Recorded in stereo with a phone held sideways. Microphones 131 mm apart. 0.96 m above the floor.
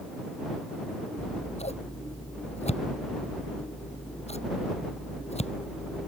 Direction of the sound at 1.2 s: 55° left (ahead or behind).